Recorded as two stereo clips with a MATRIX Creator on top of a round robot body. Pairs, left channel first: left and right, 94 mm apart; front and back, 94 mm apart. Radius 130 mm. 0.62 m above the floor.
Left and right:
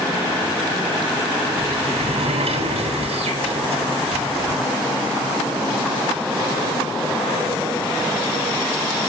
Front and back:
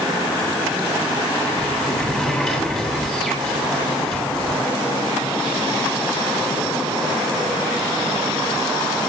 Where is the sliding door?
90° right, 8 m.